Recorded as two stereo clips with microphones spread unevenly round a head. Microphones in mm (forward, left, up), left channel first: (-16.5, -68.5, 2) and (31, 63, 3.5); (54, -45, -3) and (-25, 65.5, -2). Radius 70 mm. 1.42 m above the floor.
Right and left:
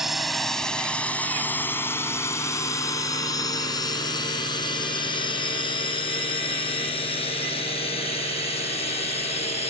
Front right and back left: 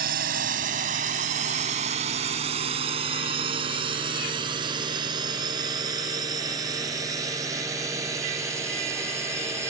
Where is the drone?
160° left; by 9.7 s 160° right.